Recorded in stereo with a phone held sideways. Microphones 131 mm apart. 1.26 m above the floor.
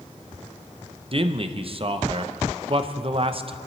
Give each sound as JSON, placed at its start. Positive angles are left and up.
{"t": 1.1, "sound": "a man speaking", "side_deg": -45, "distance_m": 0.8}